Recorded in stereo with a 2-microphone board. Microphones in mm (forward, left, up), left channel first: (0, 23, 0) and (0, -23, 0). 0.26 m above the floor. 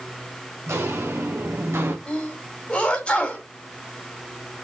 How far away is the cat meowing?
I don't hear a cat meowing.